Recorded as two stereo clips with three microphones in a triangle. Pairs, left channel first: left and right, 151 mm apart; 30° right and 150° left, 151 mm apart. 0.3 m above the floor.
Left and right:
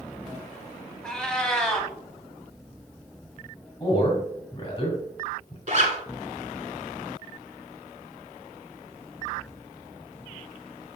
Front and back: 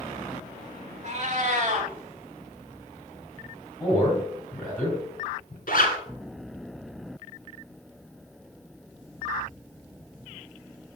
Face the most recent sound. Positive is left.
turn(degrees=-45)